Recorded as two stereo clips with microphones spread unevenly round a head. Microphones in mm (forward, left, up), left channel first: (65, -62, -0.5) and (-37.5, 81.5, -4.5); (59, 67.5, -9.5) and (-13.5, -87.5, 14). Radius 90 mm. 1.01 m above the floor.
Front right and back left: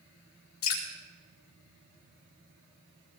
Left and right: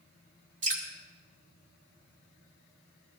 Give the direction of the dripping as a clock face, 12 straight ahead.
2 o'clock.